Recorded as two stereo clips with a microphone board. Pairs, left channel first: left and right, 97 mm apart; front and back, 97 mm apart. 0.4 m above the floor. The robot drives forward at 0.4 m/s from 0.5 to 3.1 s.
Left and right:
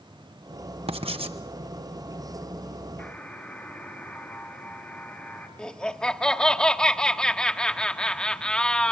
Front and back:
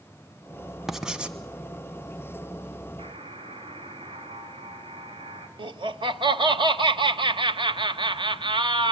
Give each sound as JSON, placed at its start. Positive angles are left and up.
{"t": 0.9, "sound": "writing", "azimuth_deg": -95, "distance_m": 1.2}
{"t": 3.0, "sound": "a buzzer", "azimuth_deg": 170, "distance_m": 3.5}
{"t": 5.6, "sound": "laughter", "azimuth_deg": 170, "distance_m": 1.4}